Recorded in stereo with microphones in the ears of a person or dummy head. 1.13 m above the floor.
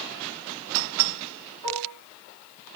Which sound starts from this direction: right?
Dishes clattering, at 1.6 s.